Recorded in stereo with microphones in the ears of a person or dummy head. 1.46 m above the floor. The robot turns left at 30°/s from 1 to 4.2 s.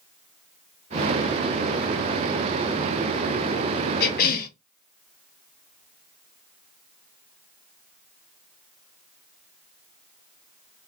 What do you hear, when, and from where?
4.0 s a cough: 60° left (ahead or behind), 0.7 m; by 4.5 s 55° left (ahead or behind), 0.7 m